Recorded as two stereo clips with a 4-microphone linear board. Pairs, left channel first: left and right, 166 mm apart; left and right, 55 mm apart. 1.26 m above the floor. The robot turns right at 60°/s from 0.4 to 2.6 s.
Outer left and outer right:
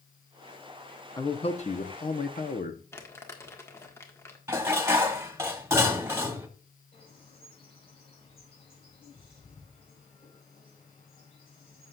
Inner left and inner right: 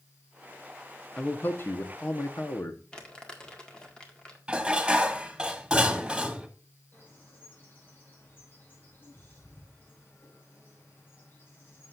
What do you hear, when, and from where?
1.2 s a man speaking: 25° left, 1.0 m; by 2.8 s 110° left, 1.0 m
2.9 s crumpling: 15° left (ahead or behind), 1.7 m
4.5 s dishes clattering: 15° right (ahead or behind), 1.3 m
6.9 s a bird: 35° left (ahead or behind), 5.5 m